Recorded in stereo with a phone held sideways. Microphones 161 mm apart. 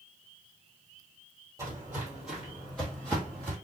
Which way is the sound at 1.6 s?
20° right (ahead or behind).